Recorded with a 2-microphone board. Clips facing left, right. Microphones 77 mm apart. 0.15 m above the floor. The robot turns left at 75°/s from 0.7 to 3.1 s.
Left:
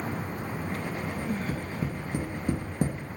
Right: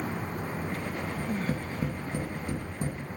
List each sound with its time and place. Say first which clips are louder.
1.2 s tapping: right 2 dB; 45° right (ahead or behind), 2.5 m; by 3.0 s 60° left (ahead or behind), 2.5 m